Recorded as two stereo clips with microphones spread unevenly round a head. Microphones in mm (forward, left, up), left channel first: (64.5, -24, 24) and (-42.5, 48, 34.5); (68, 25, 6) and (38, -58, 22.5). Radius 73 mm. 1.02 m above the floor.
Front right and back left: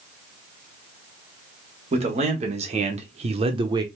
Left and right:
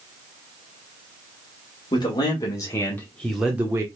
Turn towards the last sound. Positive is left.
turn(degrees=-170)